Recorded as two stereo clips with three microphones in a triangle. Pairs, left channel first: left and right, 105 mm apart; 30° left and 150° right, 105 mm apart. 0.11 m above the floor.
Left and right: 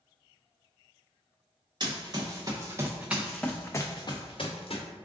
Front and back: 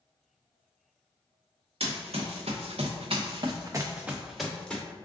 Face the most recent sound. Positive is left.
turn(degrees=110)